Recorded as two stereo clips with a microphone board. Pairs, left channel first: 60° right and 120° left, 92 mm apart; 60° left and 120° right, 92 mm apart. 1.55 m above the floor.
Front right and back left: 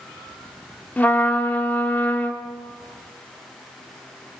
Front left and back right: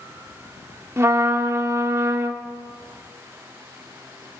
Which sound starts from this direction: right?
A trumpet, at 1.0 s.